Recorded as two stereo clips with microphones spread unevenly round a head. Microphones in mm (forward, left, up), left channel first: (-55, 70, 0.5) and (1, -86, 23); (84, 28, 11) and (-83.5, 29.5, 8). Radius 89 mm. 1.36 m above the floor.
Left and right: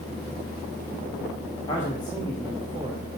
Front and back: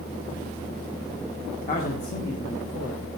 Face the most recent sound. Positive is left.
turn(degrees=-20)